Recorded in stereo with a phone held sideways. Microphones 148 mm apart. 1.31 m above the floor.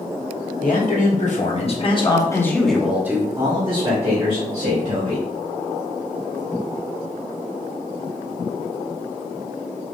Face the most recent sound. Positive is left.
turn(degrees=-55)  # may be behind; listen again after turning